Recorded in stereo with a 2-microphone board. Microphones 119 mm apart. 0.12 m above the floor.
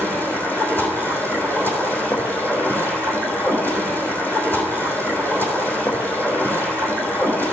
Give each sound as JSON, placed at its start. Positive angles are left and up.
{"t": 0.0, "sound": "running water", "side_deg": 15, "distance_m": 3.0}